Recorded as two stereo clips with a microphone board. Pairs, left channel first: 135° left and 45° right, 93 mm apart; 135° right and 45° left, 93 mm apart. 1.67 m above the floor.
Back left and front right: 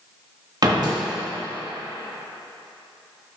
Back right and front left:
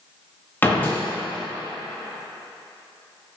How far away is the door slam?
About 1.5 m.